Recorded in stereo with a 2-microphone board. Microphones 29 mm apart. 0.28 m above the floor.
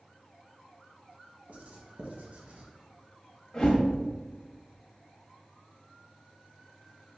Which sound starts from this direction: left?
A whoosh, at 3.5 s.